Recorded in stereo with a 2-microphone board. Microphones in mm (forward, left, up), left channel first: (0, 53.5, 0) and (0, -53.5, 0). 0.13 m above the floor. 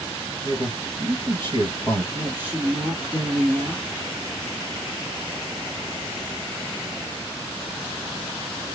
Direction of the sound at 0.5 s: 45° right (ahead or behind).